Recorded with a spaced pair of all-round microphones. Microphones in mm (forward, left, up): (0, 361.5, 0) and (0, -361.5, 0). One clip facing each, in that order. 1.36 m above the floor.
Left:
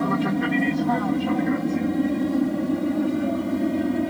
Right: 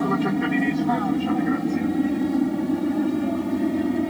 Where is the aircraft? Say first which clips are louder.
Right 1 dB; 5° left (ahead or behind).